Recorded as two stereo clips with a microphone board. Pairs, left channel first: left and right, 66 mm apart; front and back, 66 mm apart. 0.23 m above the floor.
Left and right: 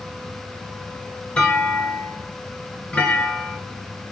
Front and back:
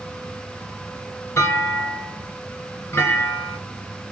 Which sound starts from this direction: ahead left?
A clunk, at 1.4 s.